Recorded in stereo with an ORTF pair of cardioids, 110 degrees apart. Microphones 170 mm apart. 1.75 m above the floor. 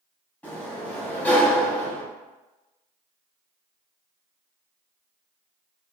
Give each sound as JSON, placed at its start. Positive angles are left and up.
{"t": 0.4, "sound": "a sliding door", "azimuth_deg": 10, "distance_m": 1.3}